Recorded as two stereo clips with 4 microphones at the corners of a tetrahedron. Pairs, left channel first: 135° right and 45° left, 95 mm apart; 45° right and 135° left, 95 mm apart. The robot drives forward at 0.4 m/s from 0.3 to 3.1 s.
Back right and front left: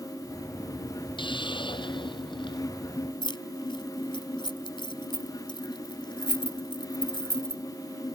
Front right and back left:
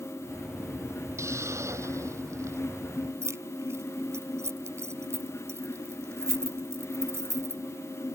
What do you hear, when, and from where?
1.2 s a hiss: 165° right
3.2 s keys jangling: 165° right